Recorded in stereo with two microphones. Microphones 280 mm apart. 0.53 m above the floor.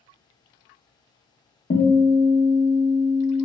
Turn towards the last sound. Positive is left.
turn(degrees=30)  # may be behind; listen again after turning